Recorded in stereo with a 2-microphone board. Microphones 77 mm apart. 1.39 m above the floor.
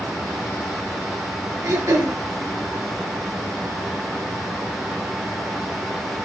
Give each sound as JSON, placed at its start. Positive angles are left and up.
{"t": 1.6, "sound": "throat clearing", "side_deg": -50, "distance_m": 4.0}